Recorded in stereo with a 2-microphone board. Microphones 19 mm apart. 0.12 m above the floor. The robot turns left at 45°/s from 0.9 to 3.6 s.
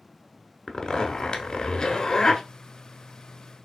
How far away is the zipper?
About 0.6 m.